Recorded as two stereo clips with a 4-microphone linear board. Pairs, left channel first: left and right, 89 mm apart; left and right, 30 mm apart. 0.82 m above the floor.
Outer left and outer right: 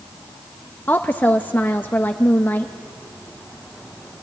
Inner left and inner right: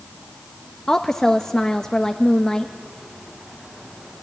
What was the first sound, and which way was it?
A woman speaking, 20° left (ahead or behind).